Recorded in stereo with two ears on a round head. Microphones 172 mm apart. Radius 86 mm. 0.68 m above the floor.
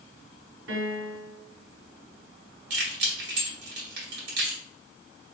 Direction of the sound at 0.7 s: 75° right (ahead or behind).